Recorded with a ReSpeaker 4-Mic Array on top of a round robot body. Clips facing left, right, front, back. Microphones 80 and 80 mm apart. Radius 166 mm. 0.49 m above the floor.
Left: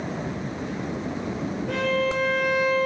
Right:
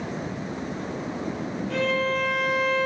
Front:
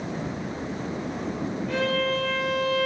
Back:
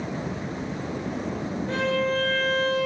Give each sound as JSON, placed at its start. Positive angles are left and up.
{"t": 1.7, "sound": "a violin", "azimuth_deg": 120, "distance_m": 6.0}